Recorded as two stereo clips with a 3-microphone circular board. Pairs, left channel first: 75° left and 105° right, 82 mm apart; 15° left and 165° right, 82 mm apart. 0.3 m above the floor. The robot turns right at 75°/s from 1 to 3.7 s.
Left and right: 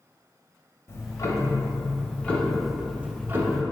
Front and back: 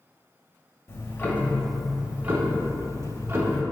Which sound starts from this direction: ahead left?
Ticking, at 0.9 s.